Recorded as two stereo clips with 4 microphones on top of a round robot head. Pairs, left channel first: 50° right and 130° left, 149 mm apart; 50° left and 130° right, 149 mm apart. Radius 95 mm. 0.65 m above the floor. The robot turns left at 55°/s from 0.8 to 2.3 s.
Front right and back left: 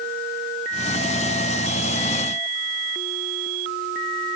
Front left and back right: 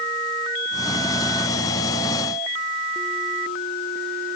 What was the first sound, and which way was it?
Only background noise.